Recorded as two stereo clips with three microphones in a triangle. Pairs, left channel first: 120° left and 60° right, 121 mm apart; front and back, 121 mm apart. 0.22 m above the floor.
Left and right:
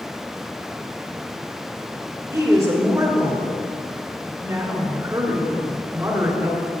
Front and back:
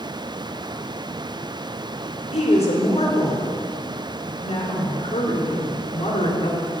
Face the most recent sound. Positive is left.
turn(degrees=0)